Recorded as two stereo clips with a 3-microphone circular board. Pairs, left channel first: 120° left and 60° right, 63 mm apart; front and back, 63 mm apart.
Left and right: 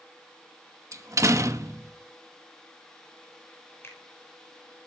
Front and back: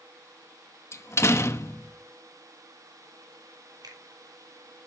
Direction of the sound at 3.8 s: 170° left.